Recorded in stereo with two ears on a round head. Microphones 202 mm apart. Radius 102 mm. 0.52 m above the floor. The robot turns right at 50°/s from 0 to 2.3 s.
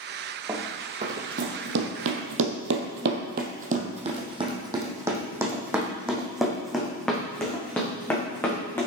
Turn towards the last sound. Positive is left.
turn(degrees=10)  # may be behind; listen again after turning